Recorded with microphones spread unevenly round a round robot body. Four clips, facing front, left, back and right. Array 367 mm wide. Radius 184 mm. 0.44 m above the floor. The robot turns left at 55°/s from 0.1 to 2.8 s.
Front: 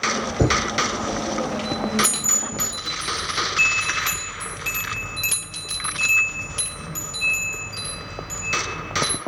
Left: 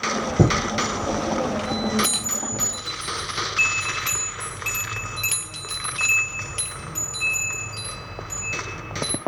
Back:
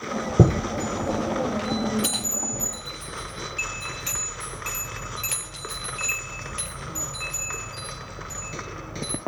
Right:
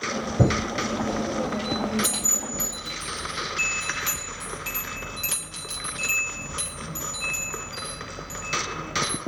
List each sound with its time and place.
0.4 s a chime: 160° left, 5 m; by 9.2 s 25° left, 5 m